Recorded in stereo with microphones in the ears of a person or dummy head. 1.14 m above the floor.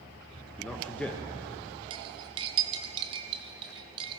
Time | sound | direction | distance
0.6 | a man speaking | 5° left (ahead or behind) | 1.0 m
1.9 | cutlery clinking | 35° right (ahead or behind) | 0.7 m